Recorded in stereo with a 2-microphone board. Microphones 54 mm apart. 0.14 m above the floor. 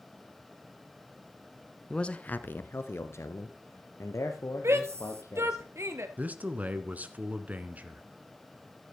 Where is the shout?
65° right (ahead or behind), 3 m.